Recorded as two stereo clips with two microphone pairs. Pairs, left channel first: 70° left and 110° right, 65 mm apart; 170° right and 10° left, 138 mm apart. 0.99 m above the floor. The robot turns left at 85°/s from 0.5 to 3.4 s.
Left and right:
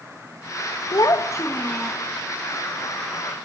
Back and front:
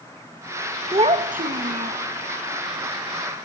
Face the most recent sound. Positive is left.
turn(degrees=-150)